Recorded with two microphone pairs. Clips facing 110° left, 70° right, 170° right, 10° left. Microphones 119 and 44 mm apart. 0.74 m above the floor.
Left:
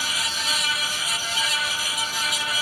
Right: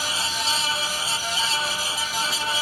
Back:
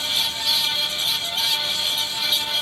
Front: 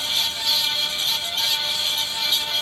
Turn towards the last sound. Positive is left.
No sound to turn to.